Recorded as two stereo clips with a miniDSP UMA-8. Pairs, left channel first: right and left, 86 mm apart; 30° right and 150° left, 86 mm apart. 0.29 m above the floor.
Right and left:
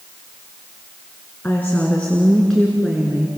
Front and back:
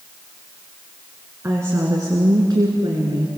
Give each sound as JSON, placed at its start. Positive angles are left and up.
{"t": 1.4, "sound": "a woman speaking", "azimuth_deg": -155, "distance_m": 3.5}